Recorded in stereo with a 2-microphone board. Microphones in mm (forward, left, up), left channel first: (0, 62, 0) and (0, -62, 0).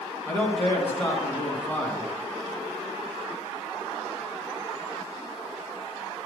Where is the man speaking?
15° left (ahead or behind), 2.5 m.